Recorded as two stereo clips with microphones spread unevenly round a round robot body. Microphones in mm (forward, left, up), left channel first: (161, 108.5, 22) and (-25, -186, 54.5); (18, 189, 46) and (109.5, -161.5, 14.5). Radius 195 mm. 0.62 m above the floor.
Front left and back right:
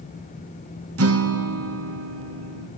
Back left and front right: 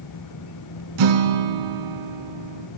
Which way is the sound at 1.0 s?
75° right.